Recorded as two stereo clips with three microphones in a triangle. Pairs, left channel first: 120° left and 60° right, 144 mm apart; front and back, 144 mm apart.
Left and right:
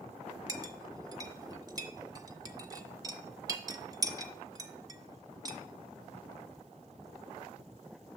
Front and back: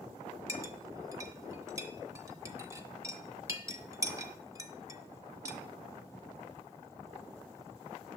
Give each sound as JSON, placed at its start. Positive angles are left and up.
{"t": 0.5, "sound": "a clink", "azimuth_deg": -120, "distance_m": 0.6}